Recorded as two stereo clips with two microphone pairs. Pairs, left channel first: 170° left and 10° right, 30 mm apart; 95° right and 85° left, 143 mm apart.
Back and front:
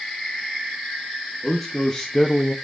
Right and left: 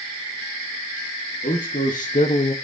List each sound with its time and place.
1.4 s a man speaking: 105° right, 1.4 m; by 2.5 s 130° right, 0.5 m